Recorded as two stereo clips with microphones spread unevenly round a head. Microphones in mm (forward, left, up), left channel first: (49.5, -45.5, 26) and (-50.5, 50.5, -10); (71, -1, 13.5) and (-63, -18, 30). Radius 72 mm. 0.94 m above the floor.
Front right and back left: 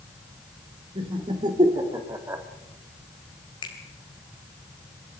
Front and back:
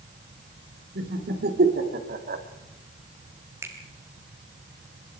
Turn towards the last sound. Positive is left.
turn(degrees=-100)